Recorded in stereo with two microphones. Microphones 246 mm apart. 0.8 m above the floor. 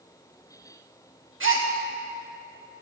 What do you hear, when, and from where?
1.4 s a gasp: 55° right (ahead or behind), 1.2 m